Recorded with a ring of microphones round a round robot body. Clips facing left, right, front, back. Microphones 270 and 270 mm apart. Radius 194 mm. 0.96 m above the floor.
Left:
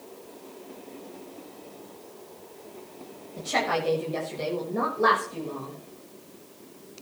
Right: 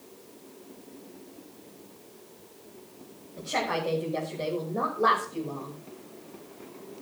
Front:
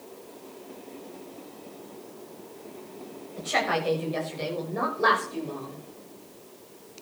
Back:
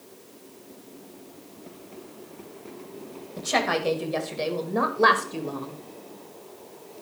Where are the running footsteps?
I don't hear running footsteps.